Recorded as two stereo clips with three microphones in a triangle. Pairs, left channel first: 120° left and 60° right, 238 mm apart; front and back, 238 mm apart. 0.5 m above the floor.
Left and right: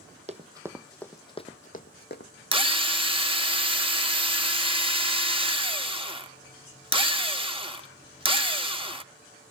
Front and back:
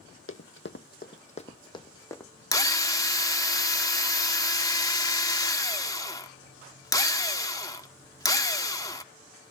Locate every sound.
0.3 s running footsteps: straight ahead, 0.9 m; by 2.3 s 80° left, 1.3 m
2.5 s a drill: 50° right, 0.9 m